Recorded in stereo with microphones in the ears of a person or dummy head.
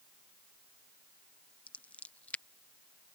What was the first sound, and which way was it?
Scissors, 5° left (ahead or behind).